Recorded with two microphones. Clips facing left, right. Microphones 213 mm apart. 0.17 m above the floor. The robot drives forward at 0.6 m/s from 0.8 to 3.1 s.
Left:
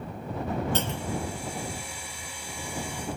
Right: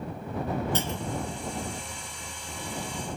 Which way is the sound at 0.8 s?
60° left (ahead or behind).